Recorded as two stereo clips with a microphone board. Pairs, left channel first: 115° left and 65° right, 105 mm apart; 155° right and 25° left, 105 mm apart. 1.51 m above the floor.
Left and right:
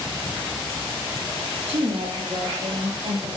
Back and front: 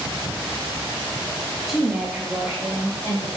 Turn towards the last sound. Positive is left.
turn(degrees=-45)